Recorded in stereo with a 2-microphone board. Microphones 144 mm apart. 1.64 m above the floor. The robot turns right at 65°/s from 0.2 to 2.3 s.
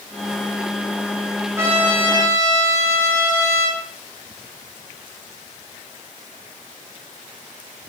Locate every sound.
1.6 s a trumpet: 20° right, 9 m; by 3.8 s 30° left, 9 m